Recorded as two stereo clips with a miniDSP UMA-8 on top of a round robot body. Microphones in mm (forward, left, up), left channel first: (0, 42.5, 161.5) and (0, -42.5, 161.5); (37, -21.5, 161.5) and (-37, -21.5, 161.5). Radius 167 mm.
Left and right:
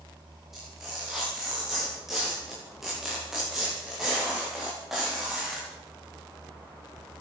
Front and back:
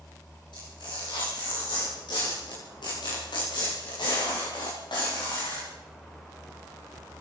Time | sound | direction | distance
0.5 | tearing paper | 5° right | 9.5 m